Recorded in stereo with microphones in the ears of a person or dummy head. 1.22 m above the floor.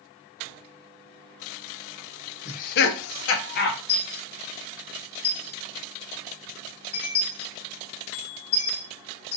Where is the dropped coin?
30° left (ahead or behind), 1.3 m.